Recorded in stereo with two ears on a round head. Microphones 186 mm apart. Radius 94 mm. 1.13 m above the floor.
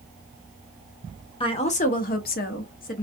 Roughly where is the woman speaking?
Left.